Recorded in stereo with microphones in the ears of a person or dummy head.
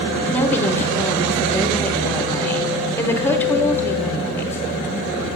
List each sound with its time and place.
0.3 s a woman speaking: 10° left (ahead or behind), 1.1 m